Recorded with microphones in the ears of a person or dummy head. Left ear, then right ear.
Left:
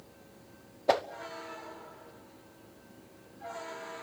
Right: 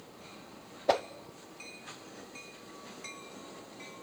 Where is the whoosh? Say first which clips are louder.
Left 1 dB; centre (ahead or behind), 0.6 m.